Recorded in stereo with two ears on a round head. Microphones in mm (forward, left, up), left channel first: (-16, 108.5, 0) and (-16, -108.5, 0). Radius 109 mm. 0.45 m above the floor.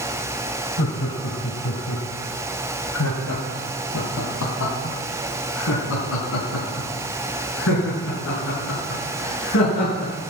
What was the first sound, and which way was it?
Laughter, 50° left (ahead or behind).